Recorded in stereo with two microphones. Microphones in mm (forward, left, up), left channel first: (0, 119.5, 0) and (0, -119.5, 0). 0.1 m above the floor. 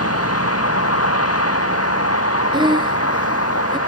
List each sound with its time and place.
0.0 s a vehicle: 80° left
2.5 s breathing: 20° right (ahead or behind)